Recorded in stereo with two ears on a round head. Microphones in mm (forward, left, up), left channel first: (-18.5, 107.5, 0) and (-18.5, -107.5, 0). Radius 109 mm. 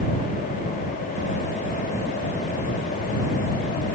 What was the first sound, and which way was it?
Only background noise.